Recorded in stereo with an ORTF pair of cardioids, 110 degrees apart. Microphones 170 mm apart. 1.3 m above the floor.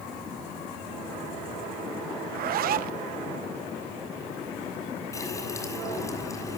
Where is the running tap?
20° left, 6.5 m.